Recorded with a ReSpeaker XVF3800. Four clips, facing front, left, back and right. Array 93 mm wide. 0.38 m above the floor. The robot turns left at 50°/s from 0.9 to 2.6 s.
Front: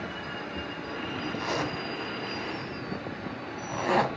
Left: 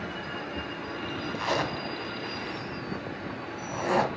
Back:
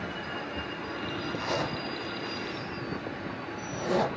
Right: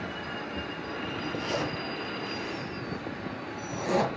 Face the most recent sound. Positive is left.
turn(degrees=30)